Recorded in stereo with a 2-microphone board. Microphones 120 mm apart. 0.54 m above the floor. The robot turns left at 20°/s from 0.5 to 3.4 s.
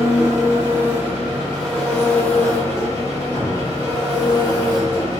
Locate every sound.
0.0 s an engine running: 155° right, 0.8 m; by 5.2 s 145° left, 0.8 m
3.4 s a cupboard door: 10° right (ahead or behind), 0.7 m